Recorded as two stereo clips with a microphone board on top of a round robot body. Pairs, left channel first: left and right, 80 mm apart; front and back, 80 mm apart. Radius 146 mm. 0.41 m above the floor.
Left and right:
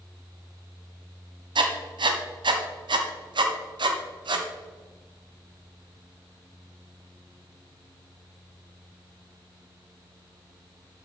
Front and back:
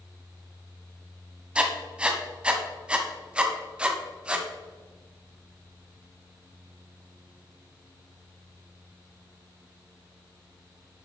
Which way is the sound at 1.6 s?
105° right.